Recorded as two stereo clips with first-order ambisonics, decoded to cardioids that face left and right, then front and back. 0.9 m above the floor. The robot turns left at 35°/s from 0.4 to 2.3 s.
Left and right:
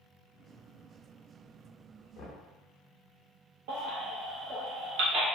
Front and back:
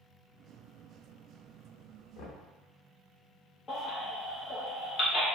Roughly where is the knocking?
Ahead left.